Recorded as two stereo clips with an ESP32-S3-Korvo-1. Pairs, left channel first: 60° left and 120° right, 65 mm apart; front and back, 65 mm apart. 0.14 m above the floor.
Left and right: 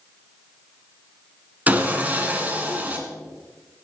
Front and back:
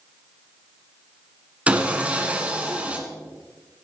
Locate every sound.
1.7 s sawing: 145° right, 1.7 m